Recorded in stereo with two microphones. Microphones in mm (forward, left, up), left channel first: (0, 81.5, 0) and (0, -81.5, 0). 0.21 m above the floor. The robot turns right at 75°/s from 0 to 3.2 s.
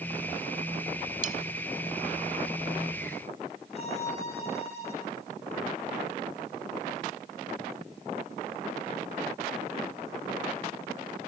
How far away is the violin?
About 9.5 m.